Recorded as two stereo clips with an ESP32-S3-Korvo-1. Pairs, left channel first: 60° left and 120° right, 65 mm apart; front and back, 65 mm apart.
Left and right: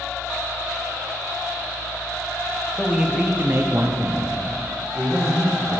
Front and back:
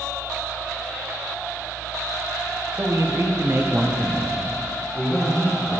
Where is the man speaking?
155° left, 1.0 m; by 5.8 s 65° right, 2 m.